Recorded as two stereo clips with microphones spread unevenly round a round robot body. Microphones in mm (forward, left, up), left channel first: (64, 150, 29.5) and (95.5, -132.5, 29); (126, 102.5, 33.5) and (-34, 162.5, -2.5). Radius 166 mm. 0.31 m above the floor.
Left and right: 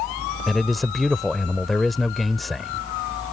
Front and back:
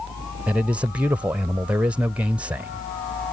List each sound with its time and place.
0.5 s a man speaking: 175° right